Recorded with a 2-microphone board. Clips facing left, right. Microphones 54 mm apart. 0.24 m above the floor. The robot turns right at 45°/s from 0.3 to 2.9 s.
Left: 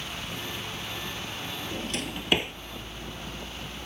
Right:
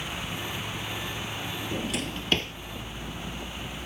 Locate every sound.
1.7 s a drawer: 15° right (ahead or behind); by 2.5 s 20° left (ahead or behind)